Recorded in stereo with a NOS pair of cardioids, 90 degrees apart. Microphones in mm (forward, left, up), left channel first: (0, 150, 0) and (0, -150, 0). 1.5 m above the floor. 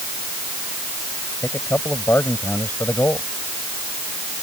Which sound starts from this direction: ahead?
A man speaking, at 1.4 s.